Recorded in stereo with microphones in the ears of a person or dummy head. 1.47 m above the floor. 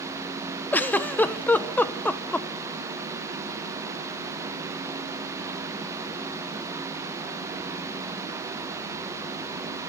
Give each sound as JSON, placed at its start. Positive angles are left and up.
{"t": 0.7, "sound": "a giggle", "side_deg": 10, "distance_m": 0.9}